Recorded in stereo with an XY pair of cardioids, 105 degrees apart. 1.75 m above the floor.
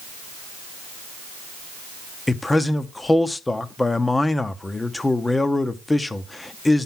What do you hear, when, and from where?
2.3 s a man speaking: 15° left, 1.0 m